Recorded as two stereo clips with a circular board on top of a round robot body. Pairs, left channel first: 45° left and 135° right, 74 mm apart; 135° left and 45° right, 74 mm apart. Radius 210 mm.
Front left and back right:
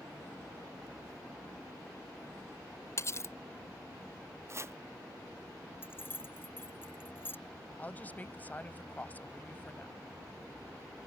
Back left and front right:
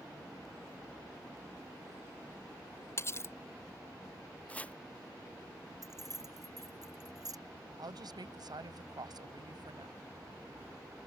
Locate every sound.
3.0 s cutlery clinking: 90° left
4.5 s chopping: 160° right
5.8 s keys jangling: 15° right
7.8 s a woman speaking: 20° right